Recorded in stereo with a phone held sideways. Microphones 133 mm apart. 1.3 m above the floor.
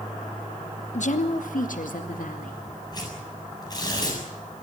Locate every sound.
0.9 s a woman speaking: 60° left (ahead or behind), 1.1 m; by 2.6 s 85° left, 3 m
2.9 s tearing paper: 30° left (ahead or behind), 7 m